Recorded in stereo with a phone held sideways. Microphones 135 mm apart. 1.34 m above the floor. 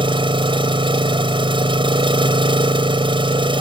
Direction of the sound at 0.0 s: 40° right (ahead or behind).